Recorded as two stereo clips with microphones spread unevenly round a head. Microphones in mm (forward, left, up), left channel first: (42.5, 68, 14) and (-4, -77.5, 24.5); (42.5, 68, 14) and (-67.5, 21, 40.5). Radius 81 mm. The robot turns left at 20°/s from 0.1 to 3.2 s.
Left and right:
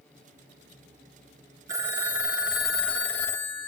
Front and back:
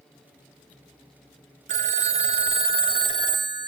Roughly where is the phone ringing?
Behind.